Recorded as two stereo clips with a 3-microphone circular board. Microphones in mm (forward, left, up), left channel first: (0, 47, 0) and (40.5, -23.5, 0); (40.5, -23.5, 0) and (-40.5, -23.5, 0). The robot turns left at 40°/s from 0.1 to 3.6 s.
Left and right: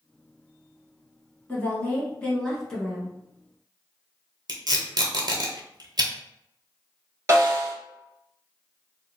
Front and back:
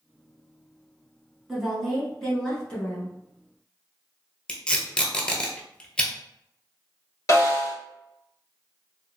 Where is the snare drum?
25° right, 1.4 m.